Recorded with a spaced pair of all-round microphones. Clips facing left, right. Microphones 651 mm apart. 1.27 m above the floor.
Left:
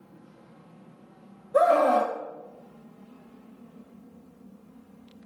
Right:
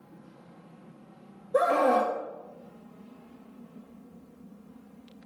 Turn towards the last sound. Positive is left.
turn(degrees=10)  # may be behind; listen again after turning